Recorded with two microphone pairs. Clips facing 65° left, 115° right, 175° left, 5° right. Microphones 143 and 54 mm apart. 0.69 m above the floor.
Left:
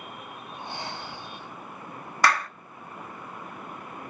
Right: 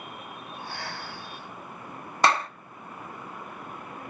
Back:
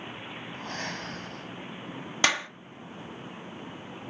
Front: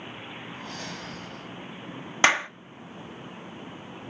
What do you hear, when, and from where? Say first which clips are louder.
0.5 s breathing: left 2 dB, back 4 dB; 135° left, 2.0 m
2.2 s a clap: right 1 dB, front 5 dB; 60° right, 0.8 m